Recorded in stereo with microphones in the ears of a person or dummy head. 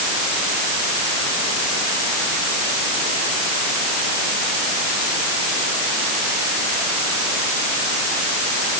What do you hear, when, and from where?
Only background noise.